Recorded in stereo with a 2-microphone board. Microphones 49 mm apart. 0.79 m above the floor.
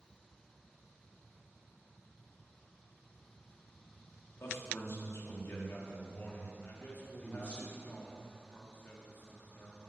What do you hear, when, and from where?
4.4 s a man speaking: 60° left (ahead or behind), 1.8 m; by 7.6 s 25° left (ahead or behind), 2.5 m
6.6 s a man speaking: 40° left (ahead or behind), 1.7 m